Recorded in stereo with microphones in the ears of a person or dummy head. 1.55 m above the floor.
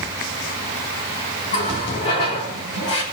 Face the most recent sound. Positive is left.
turn(degrees=30)  # may be behind; listen again after turning